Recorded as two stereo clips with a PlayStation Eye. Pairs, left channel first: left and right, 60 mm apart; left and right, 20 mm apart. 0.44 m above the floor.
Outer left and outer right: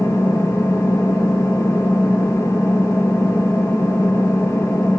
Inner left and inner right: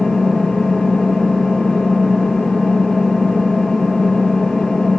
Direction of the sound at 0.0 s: 55° left (ahead or behind).